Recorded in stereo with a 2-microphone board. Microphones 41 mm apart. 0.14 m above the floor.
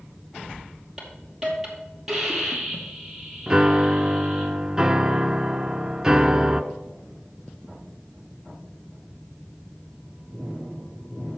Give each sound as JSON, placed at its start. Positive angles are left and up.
{"t": 1.0, "sound": "a hiss", "side_deg": -10, "distance_m": 2.5}
{"t": 3.5, "sound": "a piano", "side_deg": -15, "distance_m": 0.5}